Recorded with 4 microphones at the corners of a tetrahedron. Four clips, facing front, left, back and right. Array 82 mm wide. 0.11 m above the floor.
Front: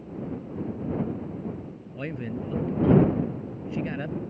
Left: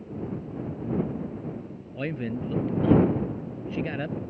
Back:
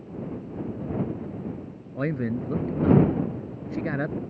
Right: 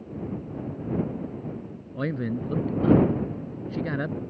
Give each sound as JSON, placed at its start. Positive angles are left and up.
{"t": 1.9, "sound": "a man speaking", "azimuth_deg": -155}